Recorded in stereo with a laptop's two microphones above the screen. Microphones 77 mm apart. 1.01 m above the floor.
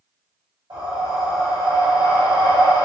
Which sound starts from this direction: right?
Breathing, at 0.7 s.